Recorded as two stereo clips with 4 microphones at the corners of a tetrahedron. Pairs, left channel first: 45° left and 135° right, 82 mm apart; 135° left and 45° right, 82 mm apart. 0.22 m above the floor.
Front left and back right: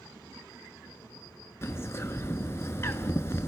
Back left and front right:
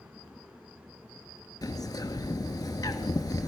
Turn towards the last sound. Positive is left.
turn(degrees=100)